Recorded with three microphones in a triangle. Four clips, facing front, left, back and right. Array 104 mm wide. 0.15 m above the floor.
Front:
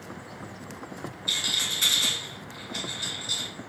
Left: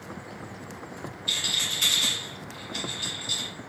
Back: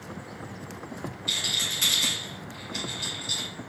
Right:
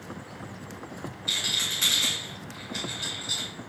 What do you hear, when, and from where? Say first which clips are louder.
1.3 s a rattle: left 1 dB, even; 70° right, 1.8 m